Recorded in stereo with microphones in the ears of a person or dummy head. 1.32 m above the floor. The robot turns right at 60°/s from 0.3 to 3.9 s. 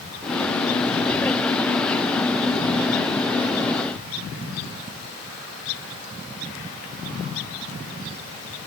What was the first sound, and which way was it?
Only background noise.